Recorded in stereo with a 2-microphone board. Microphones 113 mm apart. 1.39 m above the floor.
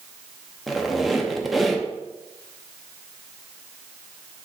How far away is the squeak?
About 0.5 m.